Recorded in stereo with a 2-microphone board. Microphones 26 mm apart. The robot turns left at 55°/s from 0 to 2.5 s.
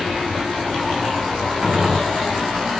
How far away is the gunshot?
About 1.8 m.